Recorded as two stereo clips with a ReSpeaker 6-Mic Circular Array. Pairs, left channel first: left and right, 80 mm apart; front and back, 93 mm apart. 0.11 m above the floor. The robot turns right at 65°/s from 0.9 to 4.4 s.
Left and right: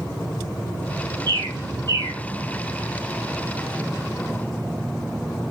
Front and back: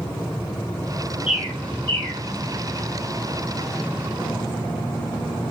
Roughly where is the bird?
Right.